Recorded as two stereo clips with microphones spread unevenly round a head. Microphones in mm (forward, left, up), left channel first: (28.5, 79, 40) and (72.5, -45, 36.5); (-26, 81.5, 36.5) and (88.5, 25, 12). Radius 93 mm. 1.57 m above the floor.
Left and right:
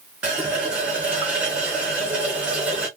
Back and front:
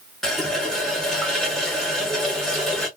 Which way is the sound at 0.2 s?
150° right.